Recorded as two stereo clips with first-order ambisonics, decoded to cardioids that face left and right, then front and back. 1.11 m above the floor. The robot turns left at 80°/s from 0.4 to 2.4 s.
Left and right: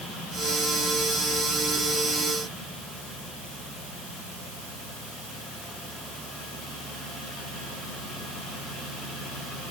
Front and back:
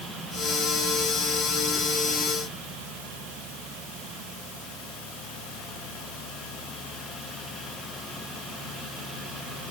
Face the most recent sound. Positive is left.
No sound to turn to.